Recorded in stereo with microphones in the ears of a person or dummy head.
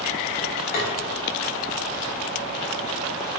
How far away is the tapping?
About 1.1 m.